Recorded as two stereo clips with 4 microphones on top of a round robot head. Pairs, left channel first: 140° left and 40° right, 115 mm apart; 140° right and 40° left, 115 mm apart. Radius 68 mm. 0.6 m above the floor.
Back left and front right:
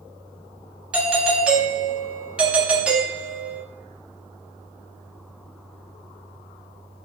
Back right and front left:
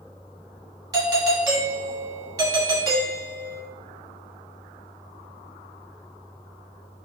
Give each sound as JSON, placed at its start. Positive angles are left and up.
{"t": 0.9, "sound": "a doorbell", "azimuth_deg": 30, "distance_m": 1.5}